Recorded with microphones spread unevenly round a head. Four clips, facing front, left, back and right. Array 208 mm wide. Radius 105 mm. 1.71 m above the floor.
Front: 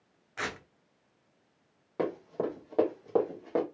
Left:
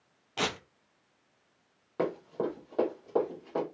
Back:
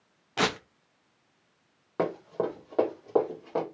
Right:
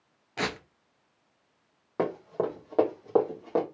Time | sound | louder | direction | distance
0.4 | tearing paper | right 1 dB, back 9 dB | 170° right | 0.6 m
2.0 | running footsteps | right 2 dB, back 3 dB | 130° right | 3 m